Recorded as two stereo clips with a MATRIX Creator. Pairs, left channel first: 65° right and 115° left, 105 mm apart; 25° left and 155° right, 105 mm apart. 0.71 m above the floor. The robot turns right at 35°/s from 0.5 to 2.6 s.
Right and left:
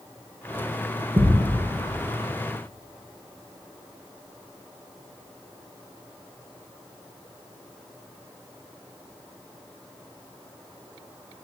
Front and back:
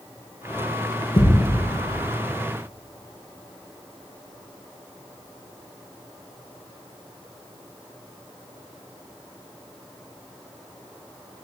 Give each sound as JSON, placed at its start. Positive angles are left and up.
{"t": 1.2, "sound": "a thud", "azimuth_deg": 70, "distance_m": 3.0}